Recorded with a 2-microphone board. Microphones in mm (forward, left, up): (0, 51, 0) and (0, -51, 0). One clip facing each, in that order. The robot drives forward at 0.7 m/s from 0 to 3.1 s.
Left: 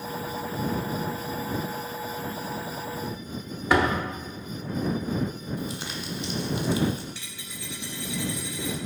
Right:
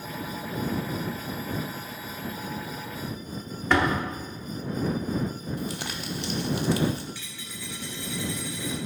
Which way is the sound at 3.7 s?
10° left (ahead or behind).